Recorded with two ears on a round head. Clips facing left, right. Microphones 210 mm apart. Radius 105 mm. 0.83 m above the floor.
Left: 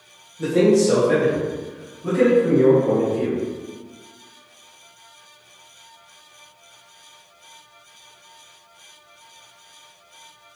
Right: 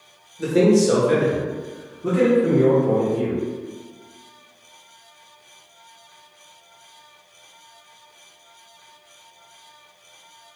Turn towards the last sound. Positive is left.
turn(degrees=-30)  # may be behind; listen again after turning